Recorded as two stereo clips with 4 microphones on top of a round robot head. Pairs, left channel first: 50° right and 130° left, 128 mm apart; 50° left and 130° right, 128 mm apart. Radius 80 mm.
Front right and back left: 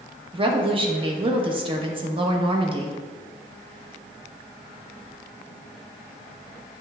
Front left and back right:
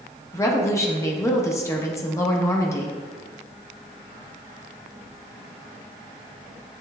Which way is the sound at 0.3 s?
110° left.